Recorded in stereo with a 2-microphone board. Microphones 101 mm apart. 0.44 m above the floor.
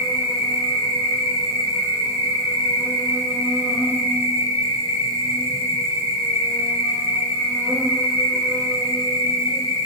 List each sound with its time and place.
0.0 s an insect: 30° right (ahead or behind), 1.4 m